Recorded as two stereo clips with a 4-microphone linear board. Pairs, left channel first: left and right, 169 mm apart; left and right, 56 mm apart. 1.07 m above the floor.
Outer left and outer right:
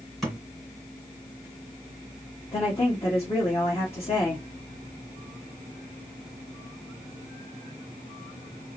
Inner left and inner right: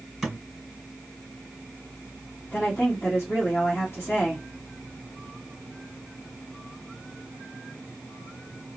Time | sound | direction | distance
0.2 | a thud | centre (ahead or behind) | 2.0 m
2.5 | a woman speaking | 35° left (ahead or behind) | 1.4 m